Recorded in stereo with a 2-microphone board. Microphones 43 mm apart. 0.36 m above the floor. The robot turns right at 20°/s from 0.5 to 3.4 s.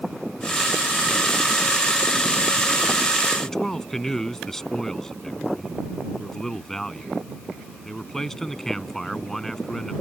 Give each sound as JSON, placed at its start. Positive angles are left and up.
{"t": 3.4, "sound": "a man speaking", "side_deg": 10}